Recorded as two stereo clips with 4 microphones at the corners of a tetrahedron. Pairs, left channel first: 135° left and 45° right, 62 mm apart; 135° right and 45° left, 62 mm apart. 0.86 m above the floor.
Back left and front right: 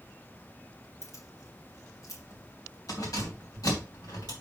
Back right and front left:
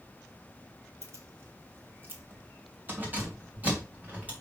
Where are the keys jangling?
90° left, 1.8 m; by 4.3 s 115° left, 4 m.